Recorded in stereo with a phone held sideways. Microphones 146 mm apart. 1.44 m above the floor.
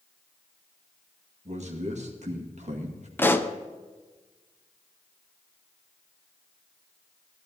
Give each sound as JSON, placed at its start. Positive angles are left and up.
{"t": 1.4, "sound": "a man speaking", "side_deg": -55, "distance_m": 2.0}
{"t": 3.2, "sound": "a pop", "side_deg": 15, "distance_m": 0.7}